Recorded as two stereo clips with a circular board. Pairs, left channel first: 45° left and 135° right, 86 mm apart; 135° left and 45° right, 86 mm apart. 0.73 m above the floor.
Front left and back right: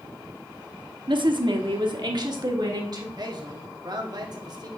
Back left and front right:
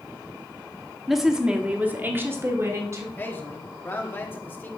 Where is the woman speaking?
135° right, 1.0 m; by 3.1 s 95° right, 1.7 m.